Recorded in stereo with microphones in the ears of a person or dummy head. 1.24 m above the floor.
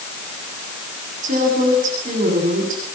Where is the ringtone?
I don't hear a ringtone.